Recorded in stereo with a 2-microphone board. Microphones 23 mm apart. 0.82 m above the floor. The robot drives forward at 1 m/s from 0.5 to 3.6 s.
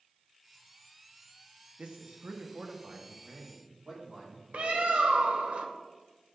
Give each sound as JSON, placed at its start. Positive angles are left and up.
{"t": 1.8, "sound": "a man speaking", "side_deg": -55, "distance_m": 1.2}
{"t": 4.5, "sound": "a bird", "side_deg": -65, "distance_m": 0.9}